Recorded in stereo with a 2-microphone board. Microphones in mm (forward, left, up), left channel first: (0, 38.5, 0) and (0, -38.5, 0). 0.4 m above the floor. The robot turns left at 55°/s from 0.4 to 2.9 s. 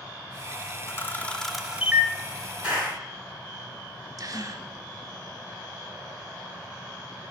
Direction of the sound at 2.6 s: 15° right (ahead or behind).